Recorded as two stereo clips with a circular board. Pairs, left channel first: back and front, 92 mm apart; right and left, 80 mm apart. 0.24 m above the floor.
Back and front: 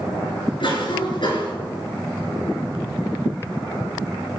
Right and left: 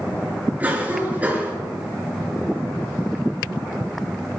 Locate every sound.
0.6 s a cough: 160° left, 4 m